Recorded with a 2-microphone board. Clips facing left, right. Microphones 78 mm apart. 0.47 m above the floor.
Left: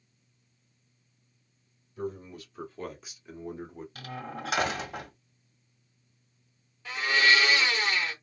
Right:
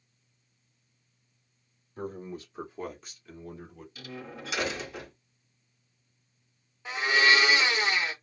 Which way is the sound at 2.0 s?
45° right (ahead or behind).